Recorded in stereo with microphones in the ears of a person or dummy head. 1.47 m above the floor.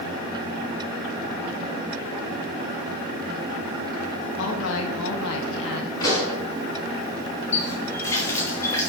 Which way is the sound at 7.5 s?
20° left (ahead or behind).